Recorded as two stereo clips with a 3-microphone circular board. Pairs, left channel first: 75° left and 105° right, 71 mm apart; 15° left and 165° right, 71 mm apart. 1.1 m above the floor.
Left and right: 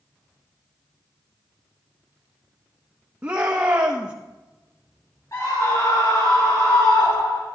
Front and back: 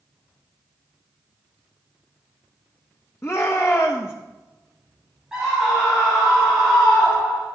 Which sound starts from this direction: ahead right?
A shout, at 3.2 s.